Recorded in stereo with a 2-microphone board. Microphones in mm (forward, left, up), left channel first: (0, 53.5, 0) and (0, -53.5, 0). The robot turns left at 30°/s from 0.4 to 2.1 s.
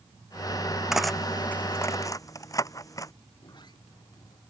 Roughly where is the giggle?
No giggle in this recording.